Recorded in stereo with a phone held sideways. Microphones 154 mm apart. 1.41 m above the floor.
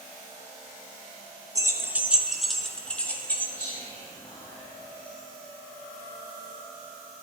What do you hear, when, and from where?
1.6 s keys jangling: 20° right (ahead or behind), 0.7 m; by 3.7 s 15° left (ahead or behind), 1.6 m
3.5 s whispering: 25° left (ahead or behind), 2.5 m